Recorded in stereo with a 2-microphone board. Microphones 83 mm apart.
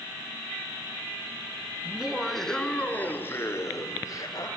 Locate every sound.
1.9 s laughter: 15° right (ahead or behind), 2.5 m; by 4.5 s 45° left (ahead or behind), 4.5 m